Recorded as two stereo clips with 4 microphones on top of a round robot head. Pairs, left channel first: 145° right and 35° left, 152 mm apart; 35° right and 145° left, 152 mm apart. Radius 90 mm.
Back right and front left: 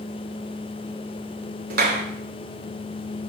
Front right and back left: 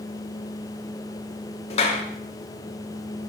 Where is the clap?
15° left, 1.5 m.